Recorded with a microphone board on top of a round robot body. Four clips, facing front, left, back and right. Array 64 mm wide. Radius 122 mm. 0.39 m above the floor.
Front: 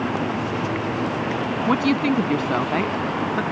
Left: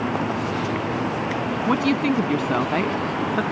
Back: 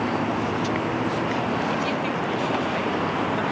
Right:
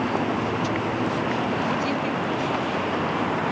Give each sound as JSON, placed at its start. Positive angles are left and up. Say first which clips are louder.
{"t": 1.7, "sound": "a woman speaking", "louder": "left 4 dB, front 5 dB", "azimuth_deg": 35}